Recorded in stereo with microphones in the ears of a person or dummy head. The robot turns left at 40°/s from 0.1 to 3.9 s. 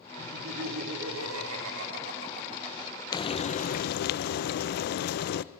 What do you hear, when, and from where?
0.2 s laughter: 50° right, 4 m; by 3.0 s 165° right, 4 m
3.1 s frying: 155° left, 0.5 m; by 5.4 s 125° left, 0.5 m